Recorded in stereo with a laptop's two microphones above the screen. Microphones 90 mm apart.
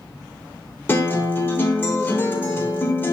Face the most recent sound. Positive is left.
turn(degrees=25)  # may be behind; listen again after turning